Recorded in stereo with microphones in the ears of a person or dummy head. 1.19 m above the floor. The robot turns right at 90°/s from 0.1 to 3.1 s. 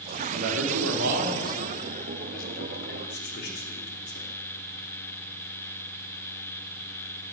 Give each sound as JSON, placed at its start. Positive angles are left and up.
{"t": 0.3, "sound": "a man speaking", "side_deg": -50, "distance_m": 3.0}